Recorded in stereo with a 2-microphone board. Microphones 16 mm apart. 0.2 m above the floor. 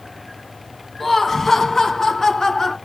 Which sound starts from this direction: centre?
Laughter, at 1.0 s.